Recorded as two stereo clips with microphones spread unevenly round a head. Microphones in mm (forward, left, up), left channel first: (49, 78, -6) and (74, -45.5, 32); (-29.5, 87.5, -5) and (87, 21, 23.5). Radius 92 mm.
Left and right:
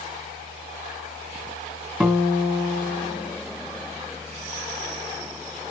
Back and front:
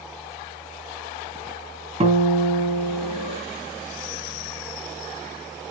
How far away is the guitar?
About 3 m.